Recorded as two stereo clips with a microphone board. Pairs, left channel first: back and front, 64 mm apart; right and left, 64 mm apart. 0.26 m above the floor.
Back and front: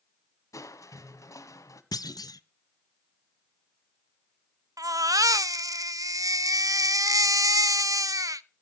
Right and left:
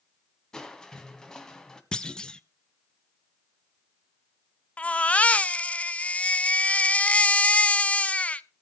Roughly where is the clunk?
Behind.